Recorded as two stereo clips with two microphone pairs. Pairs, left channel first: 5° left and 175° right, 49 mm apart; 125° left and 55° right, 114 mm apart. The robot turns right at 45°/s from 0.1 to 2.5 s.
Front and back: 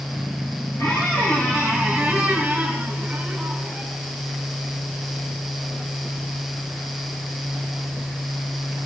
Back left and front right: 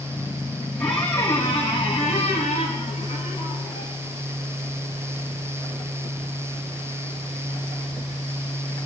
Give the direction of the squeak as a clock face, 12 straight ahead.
11 o'clock.